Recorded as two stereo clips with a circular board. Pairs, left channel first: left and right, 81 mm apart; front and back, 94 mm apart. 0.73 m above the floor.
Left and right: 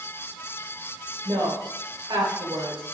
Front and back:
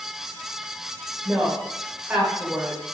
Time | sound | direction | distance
1.2 | a woman speaking | 105° right | 2.5 m